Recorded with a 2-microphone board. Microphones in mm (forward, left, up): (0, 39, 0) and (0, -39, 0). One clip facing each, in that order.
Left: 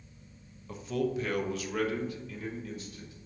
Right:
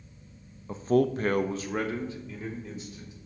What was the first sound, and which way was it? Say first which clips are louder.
A man speaking: right 7 dB; 30° right (ahead or behind).